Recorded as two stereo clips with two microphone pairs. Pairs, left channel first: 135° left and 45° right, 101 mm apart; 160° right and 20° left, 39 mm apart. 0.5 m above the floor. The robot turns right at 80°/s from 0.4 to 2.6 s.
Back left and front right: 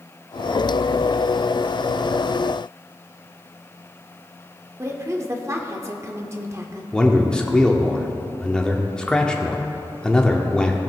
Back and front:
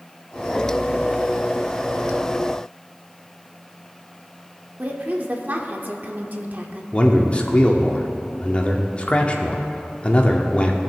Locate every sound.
4.8 s a woman speaking: 10° left, 0.9 m
6.9 s a man speaking: 155° right, 0.8 m